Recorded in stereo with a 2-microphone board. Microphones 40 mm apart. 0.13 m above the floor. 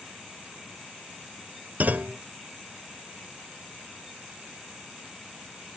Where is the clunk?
45° right (ahead or behind).